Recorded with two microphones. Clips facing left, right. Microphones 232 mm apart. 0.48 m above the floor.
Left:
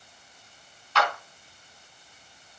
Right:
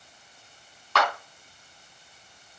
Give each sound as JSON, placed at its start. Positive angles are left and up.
{"t": 0.9, "sound": "a clap", "side_deg": -75, "distance_m": 4.0}